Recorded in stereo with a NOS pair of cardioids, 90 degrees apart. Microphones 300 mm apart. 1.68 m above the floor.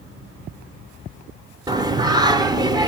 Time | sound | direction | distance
1.7 | singing | 15° right | 1.0 m